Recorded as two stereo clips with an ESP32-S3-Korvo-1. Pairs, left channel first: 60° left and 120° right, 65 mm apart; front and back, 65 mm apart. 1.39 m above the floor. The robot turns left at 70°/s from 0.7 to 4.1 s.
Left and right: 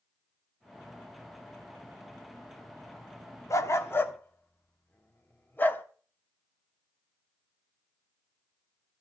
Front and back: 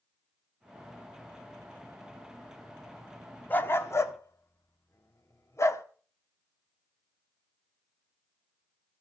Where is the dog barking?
50° left, 1.2 m; by 5.8 s 10° left, 1.2 m.